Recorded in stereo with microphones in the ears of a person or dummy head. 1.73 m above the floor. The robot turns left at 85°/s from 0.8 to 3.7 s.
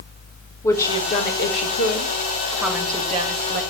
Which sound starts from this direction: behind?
A woman speaking, at 0.6 s.